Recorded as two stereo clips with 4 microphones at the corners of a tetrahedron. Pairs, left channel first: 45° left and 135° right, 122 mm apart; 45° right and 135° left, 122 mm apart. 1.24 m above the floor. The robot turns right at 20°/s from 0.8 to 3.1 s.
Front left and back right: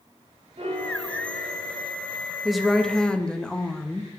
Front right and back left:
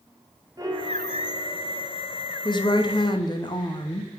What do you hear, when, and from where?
0.6 s a piano: 165° right, 1.1 m; by 1.9 s 145° right, 1.1 m
2.5 s a woman speaking: 45° right, 0.7 m; by 4.1 s 35° right, 0.7 m